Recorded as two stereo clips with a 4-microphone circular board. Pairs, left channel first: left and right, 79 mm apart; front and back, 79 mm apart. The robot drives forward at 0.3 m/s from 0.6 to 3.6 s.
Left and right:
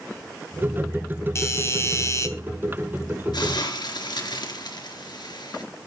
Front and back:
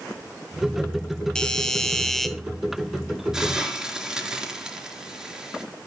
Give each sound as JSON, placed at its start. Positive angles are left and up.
{"t": 1.4, "sound": "a doorbell", "azimuth_deg": 75, "distance_m": 2.0}
{"t": 3.3, "sound": "a hiss", "azimuth_deg": 95, "distance_m": 4.0}